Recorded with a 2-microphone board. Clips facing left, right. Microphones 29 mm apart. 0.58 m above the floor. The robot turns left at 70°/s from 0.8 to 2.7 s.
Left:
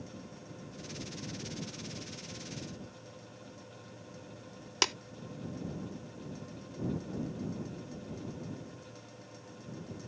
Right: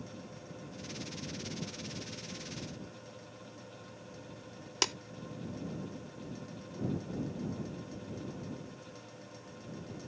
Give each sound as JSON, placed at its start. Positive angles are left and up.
{"t": 4.8, "sound": "tapping", "side_deg": 20}